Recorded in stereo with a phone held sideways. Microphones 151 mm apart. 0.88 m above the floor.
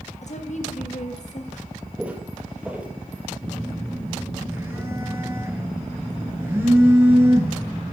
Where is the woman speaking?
55° left (ahead or behind), 1.4 m.